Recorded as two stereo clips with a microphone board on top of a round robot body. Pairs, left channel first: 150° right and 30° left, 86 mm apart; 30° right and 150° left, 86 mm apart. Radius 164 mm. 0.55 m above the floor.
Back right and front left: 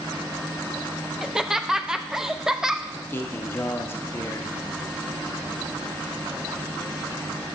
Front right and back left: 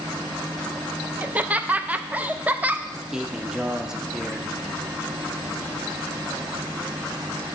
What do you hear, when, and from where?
1.2 s laughter: 105° left, 0.6 m
2.9 s a man speaking: 135° right, 0.9 m